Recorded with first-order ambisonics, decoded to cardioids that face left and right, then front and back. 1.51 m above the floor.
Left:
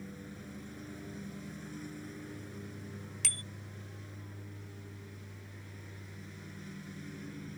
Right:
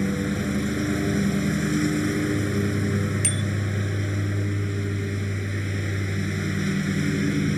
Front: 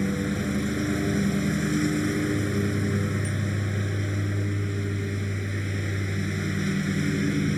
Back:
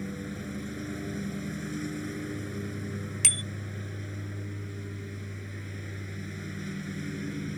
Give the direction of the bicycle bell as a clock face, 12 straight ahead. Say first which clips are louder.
Right 6 dB, back 6 dB; 6 o'clock.